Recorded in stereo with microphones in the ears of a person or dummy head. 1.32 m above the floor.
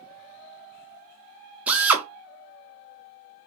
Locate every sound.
1.7 s a drill: 5° right (ahead or behind), 0.5 m